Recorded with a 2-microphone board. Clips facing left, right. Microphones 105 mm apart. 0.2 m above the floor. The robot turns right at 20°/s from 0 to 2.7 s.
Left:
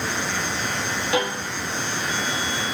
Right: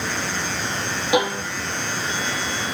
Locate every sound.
1.1 s a violin: 20° right (ahead or behind), 2 m; by 1.4 s 10° right (ahead or behind), 2 m